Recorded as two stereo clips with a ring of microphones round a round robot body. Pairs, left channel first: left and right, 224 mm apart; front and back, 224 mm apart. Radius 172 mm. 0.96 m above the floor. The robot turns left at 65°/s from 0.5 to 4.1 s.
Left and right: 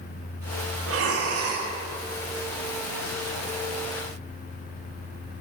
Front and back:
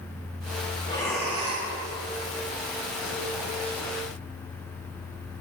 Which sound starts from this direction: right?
Breathing, at 0.9 s.